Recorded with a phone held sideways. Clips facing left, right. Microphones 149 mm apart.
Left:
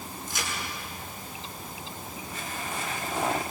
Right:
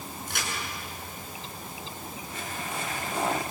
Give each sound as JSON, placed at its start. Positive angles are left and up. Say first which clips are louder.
{"t": 0.3, "sound": "a crack", "louder": "even", "side_deg": -65, "distance_m": 7.5}